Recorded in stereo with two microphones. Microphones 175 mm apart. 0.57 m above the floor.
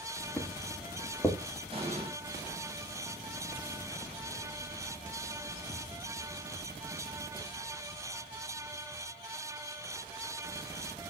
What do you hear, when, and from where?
0.4 s footsteps: 5° left (ahead or behind), 4.5 m; by 1.4 s 10° left (ahead or behind), 5 m
1.7 s an explosion: 35° right (ahead or behind), 4 m